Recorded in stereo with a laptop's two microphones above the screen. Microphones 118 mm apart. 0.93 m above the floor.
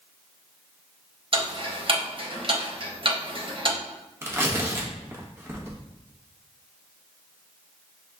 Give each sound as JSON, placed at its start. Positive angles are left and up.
{"t": 1.3, "sound": "ticking", "side_deg": -50, "distance_m": 0.8}
{"t": 4.2, "sound": "tearing paper", "side_deg": -20, "distance_m": 1.0}